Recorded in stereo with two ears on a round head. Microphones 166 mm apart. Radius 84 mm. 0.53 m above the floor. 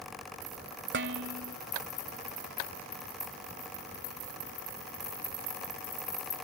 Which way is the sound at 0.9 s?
60° right (ahead or behind).